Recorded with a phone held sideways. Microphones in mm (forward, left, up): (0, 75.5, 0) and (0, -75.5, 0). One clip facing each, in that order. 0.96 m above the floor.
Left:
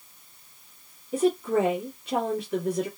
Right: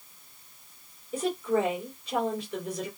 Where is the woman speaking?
55° left (ahead or behind), 1.6 m.